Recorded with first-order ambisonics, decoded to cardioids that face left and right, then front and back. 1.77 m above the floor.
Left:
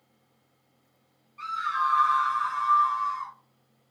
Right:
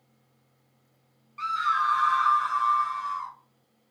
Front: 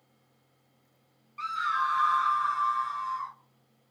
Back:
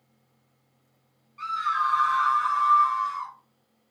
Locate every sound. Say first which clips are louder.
1.4 s a scream: right 2 dB, back 3 dB; 55° right, 0.8 m; by 3.3 s straight behind, 1.1 m